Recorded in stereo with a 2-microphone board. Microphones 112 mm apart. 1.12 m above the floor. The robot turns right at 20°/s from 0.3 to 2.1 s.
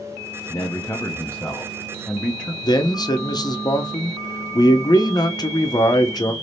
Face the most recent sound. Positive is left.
turn(degrees=35)  # may be behind; listen again after turning